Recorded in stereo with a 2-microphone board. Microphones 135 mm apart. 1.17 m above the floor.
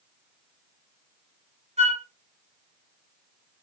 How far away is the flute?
About 1.0 m.